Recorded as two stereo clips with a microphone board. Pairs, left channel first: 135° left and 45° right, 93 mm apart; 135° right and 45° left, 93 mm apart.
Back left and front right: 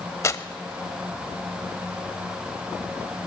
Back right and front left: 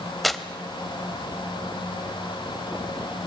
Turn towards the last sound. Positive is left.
turn(degrees=135)